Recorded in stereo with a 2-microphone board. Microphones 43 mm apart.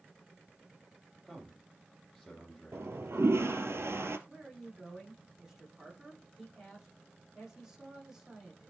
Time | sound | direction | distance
1.2 | a man speaking | 5° right (ahead or behind) | 7.5 m
2.7 | a toilet flushing | 85° right | 1.1 m
4.3 | a man speaking | 15° right (ahead or behind) | 8.5 m